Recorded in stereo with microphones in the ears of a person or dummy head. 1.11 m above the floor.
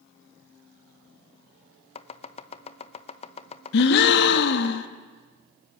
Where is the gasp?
65° left (ahead or behind), 1.3 m.